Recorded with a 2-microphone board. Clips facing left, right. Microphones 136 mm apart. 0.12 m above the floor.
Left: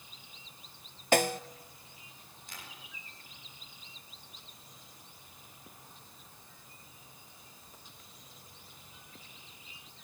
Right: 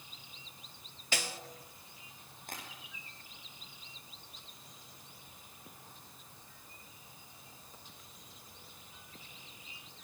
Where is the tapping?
55° right (ahead or behind), 10 m.